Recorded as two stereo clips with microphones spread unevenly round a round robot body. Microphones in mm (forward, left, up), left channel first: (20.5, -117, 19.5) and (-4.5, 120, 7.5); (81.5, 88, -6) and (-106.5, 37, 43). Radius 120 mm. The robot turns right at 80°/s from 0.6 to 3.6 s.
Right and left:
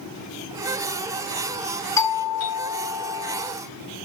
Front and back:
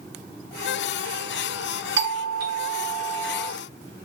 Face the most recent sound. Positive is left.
turn(degrees=-30)